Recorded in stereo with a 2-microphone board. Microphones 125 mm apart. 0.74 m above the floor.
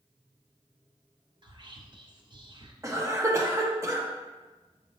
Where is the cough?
25° right (ahead or behind), 0.8 m.